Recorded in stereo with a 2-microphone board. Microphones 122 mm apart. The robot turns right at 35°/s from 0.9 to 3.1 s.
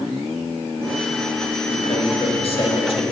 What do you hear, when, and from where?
1.7 s a man speaking: 60° left, 1.4 m; by 3.0 s 105° left, 1.4 m